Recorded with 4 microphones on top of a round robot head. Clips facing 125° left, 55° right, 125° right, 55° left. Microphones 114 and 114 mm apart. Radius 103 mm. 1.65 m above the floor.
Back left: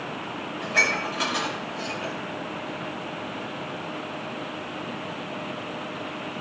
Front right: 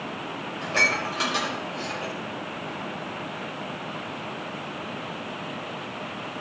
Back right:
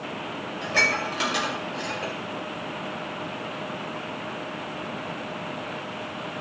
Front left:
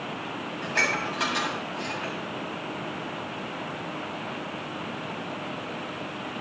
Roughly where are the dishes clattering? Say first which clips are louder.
Even, back right 2 dB; behind right.